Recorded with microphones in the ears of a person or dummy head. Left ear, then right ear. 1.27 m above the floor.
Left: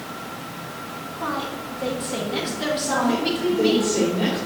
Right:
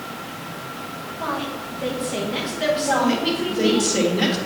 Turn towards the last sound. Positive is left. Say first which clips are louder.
# right 2 dB
turn(degrees=-80)